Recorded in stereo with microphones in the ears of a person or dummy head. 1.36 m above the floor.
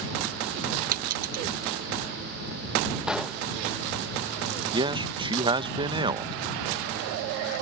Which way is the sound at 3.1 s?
5° left (ahead or behind).